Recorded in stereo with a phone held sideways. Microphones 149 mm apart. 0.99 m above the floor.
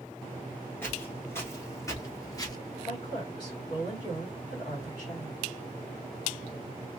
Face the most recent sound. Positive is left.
turn(degrees=30)  # may be behind; listen again after turning